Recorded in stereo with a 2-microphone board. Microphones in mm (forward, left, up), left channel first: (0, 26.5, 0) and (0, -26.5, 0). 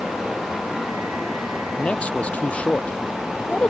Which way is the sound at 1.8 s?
25° left (ahead or behind).